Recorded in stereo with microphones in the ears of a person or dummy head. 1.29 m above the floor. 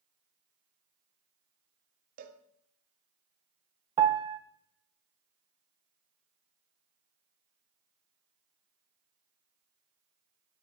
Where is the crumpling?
I don't hear crumpling.